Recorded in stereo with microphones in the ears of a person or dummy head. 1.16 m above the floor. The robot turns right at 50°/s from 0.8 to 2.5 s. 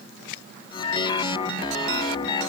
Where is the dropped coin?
I don't hear a dropped coin.